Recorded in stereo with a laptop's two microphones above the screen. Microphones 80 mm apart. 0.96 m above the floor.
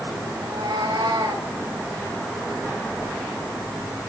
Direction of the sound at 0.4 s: 85° right.